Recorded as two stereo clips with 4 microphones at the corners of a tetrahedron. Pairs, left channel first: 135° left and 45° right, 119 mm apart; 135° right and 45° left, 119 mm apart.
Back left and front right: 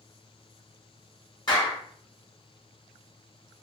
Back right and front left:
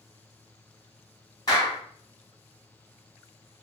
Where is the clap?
175° left, 1.7 m.